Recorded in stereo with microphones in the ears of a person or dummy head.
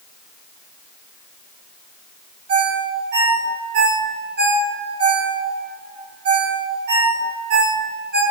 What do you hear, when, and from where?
2.5 s a ringtone: 60° right (ahead or behind), 2 m